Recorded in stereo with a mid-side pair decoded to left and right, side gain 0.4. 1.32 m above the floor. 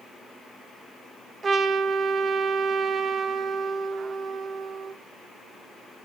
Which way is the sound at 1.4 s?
55° right.